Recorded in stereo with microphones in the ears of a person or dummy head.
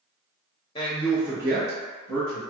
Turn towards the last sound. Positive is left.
turn(degrees=-50)  # may be behind; listen again after turning